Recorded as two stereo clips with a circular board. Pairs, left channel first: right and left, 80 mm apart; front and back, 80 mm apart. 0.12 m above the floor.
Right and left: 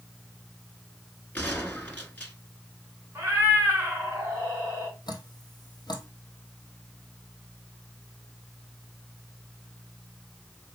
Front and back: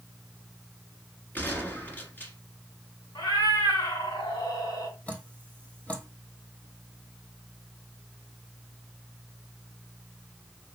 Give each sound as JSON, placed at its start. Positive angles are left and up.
{"t": 1.4, "sound": "a gunshot", "azimuth_deg": -40, "distance_m": 1.4}
{"t": 3.1, "sound": "a cat meowing", "azimuth_deg": 30, "distance_m": 3.5}
{"t": 5.1, "sound": "dripping", "azimuth_deg": -75, "distance_m": 1.1}